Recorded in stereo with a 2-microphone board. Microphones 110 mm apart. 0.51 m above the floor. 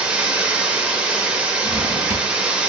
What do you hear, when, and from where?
0.0 s running water: 10° right (ahead or behind), 0.7 m
1.6 s a drawer: 35° right (ahead or behind), 0.6 m